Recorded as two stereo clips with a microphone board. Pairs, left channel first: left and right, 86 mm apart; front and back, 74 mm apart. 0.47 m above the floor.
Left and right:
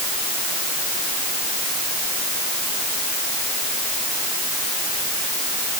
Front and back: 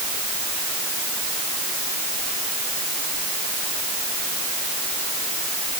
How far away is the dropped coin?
I don't hear a dropped coin.